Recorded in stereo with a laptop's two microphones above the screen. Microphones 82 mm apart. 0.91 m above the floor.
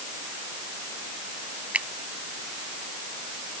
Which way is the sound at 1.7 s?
15° right (ahead or behind).